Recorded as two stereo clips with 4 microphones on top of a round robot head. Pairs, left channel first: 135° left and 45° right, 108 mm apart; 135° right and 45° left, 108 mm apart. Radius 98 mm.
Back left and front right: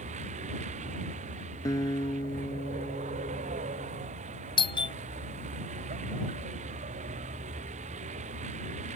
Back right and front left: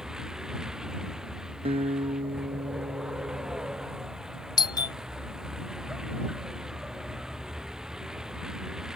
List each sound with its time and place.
0.0 s a vehicle: 40° right
1.6 s a guitar: 75° left
4.6 s a doorbell: 175° left